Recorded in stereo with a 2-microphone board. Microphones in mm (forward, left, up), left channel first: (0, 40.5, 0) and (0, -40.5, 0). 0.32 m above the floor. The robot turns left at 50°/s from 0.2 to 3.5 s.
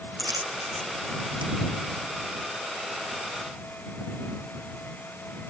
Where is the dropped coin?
45° right (ahead or behind); by 1.5 s 65° right (ahead or behind).